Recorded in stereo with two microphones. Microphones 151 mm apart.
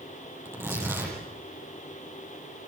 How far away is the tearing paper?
About 8.5 m.